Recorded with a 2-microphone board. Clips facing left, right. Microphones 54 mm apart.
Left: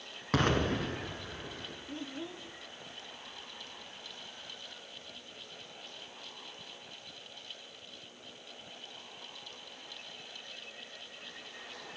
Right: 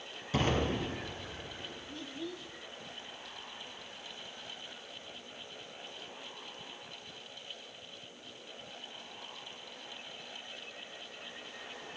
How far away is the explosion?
About 3 m.